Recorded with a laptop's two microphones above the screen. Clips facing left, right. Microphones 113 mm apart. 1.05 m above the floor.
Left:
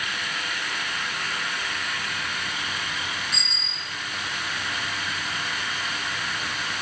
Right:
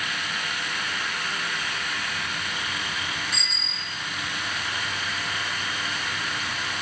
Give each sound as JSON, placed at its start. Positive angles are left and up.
{"t": 3.3, "sound": "a bicycle bell", "side_deg": 0, "distance_m": 4.5}